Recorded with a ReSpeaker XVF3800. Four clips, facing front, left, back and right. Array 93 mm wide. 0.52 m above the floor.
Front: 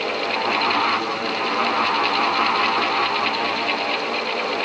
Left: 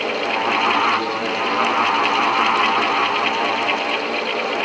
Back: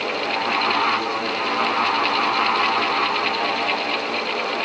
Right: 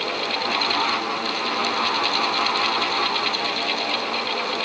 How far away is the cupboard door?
I don't hear a cupboard door.